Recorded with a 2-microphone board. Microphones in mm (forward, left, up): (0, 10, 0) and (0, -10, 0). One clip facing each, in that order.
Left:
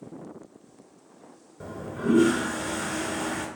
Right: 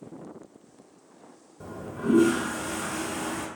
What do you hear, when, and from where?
1.6 s a toilet flushing: 30° left (ahead or behind), 0.8 m